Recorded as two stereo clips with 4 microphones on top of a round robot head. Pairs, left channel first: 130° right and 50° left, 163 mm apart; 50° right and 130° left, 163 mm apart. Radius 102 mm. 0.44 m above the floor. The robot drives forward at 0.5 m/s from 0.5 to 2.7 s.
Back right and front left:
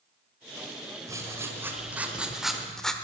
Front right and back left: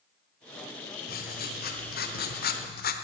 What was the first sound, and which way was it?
Writing, 25° right.